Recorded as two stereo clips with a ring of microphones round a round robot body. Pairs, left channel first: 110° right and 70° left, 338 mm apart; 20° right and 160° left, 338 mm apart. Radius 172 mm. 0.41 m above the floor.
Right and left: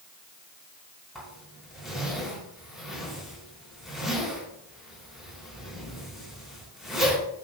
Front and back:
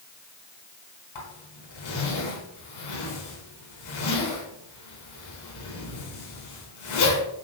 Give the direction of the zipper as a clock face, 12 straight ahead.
1 o'clock.